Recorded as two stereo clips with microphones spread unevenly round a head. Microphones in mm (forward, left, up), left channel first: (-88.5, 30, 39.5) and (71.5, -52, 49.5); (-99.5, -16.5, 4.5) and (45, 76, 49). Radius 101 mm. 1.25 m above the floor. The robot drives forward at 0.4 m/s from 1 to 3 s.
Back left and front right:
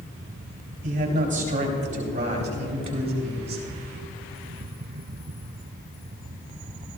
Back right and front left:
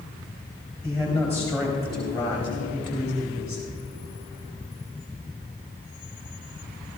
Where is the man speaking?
70° right, 4 m; by 3.6 s 85° right, 3.5 m.